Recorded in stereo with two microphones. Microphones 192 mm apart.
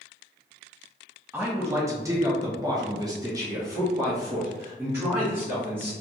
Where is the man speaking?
10° right (ahead or behind), 1.2 m.